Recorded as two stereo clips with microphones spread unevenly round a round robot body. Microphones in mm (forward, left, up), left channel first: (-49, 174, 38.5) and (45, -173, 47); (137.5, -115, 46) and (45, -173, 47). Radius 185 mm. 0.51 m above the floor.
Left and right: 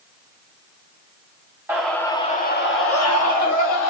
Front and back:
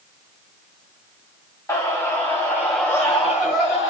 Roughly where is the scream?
Ahead.